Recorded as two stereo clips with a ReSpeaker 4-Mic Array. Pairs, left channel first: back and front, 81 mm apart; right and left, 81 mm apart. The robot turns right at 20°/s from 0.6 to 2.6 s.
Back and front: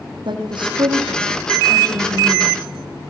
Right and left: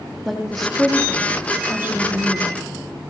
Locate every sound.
0.2 s a woman speaking: straight ahead, 5 m; by 2.6 s 40° left, 5 m